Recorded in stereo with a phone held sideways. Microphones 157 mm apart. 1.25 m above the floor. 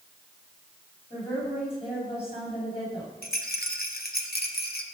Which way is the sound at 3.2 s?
75° left (ahead or behind).